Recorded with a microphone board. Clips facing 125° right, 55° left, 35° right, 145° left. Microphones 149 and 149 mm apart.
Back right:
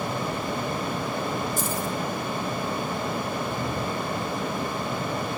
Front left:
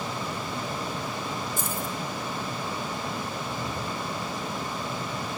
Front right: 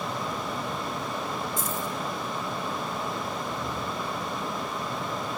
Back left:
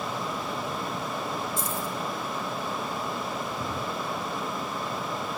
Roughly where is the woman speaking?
I don't hear a woman speaking.